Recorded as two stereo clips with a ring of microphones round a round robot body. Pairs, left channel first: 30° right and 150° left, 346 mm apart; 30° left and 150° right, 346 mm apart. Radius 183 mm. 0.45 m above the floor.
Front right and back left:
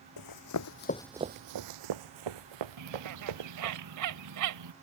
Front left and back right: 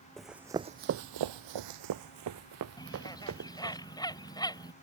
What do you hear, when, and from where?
0.2 s running footsteps: 60° right; by 3.8 s 155° left
2.8 s a bird: 110° left